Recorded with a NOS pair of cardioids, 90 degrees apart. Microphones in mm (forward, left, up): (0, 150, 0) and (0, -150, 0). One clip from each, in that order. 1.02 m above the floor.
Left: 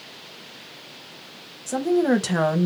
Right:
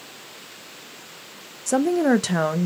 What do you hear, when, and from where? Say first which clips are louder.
1.7 s a woman speaking: right 1 dB; 45° right, 0.7 m; by 2.7 s 10° left, 0.6 m